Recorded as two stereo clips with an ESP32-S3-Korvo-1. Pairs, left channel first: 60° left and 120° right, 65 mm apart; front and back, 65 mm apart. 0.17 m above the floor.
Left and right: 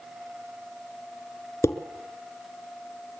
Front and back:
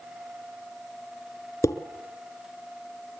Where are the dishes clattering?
25° left, 1.7 m.